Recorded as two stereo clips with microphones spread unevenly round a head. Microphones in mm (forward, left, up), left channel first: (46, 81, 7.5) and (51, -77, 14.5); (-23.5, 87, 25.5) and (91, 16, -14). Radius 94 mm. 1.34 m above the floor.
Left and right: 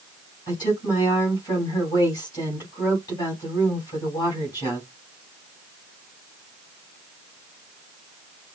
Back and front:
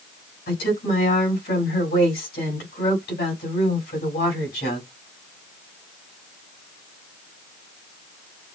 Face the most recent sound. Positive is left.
turn(degrees=165)